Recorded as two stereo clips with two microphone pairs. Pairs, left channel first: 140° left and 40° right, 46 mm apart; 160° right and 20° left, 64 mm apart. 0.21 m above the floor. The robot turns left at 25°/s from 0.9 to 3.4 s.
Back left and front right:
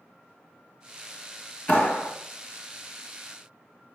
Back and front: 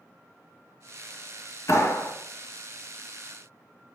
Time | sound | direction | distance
1.7 | a clap | 175° right | 2 m